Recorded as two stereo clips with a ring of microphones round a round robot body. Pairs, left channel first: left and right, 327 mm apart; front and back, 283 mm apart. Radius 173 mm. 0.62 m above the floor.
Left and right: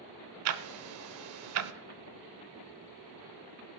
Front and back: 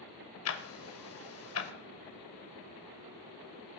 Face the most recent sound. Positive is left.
turn(degrees=-50)